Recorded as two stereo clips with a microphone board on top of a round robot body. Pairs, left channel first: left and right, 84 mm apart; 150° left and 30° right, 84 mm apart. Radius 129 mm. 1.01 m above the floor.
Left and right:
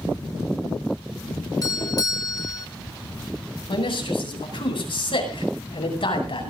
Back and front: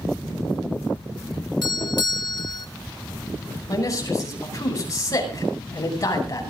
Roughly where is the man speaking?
Left.